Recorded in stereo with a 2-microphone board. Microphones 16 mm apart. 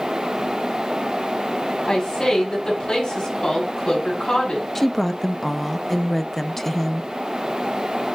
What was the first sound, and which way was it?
A woman speaking, 60° left (ahead or behind).